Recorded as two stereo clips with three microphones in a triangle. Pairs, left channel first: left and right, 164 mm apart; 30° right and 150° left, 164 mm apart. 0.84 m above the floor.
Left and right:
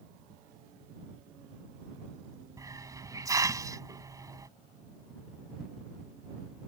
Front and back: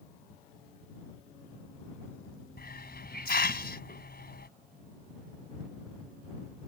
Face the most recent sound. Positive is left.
turn(degrees=-20)